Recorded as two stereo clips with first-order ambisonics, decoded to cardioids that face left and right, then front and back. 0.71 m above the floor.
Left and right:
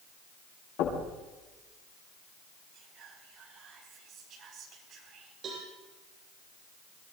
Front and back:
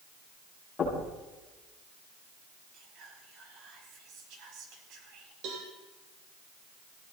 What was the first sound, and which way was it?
Knocking, 70° left.